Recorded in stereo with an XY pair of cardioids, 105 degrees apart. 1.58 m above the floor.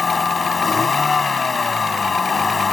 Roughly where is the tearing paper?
No tearing paper in this recording.